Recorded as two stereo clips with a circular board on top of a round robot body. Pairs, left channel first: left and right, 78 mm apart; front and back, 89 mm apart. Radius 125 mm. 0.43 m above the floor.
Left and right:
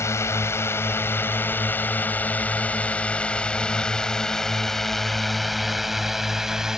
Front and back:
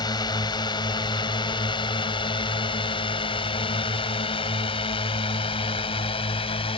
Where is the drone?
40° left; by 6.8 s 5° right.